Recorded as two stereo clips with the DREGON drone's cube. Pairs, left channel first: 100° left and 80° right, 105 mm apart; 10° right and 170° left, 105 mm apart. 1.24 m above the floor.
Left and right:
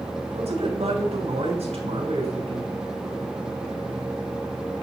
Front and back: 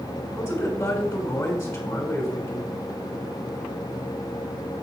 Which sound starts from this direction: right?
A man speaking, at 0.3 s.